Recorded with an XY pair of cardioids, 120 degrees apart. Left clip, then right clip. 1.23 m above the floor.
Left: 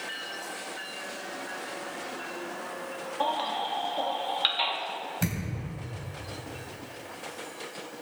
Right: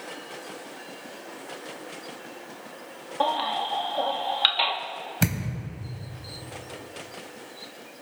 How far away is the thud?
About 2.5 m.